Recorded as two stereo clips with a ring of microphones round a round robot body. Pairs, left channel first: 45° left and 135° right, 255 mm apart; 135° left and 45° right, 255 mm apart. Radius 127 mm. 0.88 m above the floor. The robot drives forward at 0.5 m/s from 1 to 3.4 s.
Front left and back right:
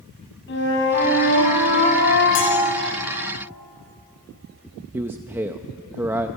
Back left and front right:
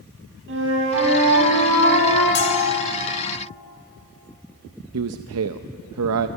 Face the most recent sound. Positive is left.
turn(degrees=-55)